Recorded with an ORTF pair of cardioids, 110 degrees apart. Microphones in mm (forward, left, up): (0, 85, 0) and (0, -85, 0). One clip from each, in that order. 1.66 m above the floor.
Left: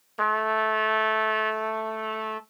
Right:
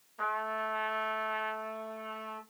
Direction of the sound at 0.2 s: 60° left.